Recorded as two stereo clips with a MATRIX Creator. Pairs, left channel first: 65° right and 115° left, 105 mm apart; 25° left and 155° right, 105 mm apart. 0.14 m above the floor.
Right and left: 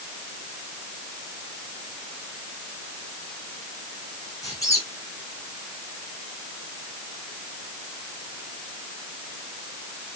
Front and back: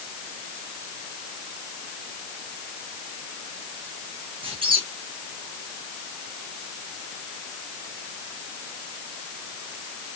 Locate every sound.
4.4 s a squeak: 125° right, 4.5 m